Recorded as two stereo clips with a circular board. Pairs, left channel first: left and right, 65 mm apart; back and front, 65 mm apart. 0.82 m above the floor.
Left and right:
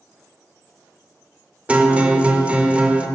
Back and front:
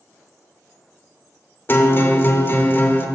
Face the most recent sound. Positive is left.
turn(degrees=-150)